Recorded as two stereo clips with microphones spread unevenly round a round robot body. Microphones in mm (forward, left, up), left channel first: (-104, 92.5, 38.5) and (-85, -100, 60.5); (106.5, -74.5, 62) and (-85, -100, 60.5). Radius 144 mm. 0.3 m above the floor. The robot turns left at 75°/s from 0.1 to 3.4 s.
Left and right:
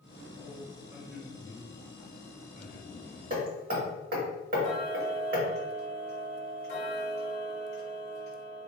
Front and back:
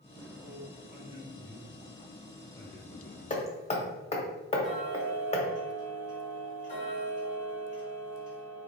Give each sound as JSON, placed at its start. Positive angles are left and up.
{"t": 0.3, "sound": "a man speaking", "azimuth_deg": -125, "distance_m": 1.4}
{"t": 3.3, "sound": "hammering", "azimuth_deg": -40, "distance_m": 1.1}
{"t": 4.6, "sound": "ticking", "azimuth_deg": 55, "distance_m": 1.5}